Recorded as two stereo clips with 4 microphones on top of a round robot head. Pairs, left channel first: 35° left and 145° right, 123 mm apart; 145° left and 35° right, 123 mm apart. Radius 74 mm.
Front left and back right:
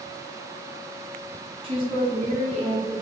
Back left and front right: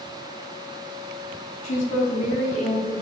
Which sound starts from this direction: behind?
A woman speaking, at 1.6 s.